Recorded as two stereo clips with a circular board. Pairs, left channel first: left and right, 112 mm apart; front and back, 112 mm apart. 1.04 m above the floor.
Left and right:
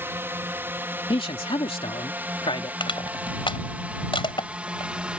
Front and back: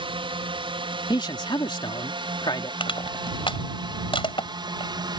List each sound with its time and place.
0.0 s a drone: 155° right; by 5.2 s 165° right
1.1 s a man speaking: 50° left
2.8 s crushing: 45° left